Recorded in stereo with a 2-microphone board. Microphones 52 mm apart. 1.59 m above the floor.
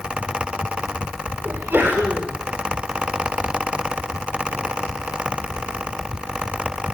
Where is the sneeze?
35° right (ahead or behind), 5.5 m.